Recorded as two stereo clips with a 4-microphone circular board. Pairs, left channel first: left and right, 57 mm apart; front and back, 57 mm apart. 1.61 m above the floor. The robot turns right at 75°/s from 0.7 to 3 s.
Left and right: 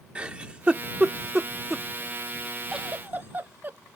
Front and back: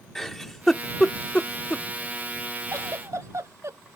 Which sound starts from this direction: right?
A giggle, at 0.1 s.